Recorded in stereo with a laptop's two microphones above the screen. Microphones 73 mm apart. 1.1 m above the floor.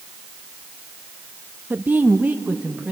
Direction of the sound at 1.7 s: 25° right (ahead or behind).